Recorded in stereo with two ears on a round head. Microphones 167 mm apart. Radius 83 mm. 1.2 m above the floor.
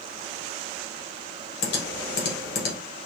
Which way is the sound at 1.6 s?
60° left (ahead or behind).